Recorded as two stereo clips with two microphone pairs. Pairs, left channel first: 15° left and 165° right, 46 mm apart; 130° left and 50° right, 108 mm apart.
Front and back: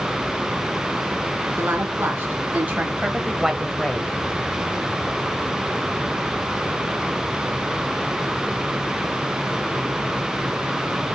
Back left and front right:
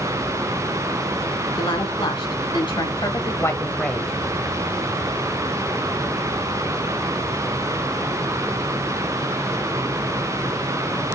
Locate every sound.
1.6 s a woman speaking: 155° left, 3 m; by 4.1 s 35° left, 1.4 m